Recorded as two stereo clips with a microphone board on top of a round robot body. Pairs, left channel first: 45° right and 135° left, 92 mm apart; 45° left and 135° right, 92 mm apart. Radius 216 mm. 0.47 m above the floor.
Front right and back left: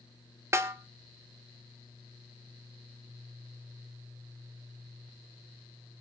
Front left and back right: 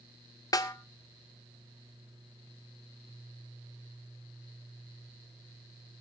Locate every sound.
0.5 s a snare drum: 80° left, 1.7 m